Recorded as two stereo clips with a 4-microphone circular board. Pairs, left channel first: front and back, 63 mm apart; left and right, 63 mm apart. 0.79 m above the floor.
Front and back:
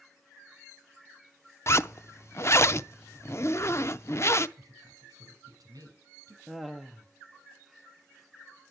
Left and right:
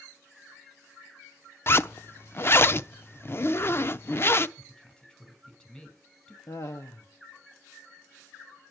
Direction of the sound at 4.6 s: 165° left.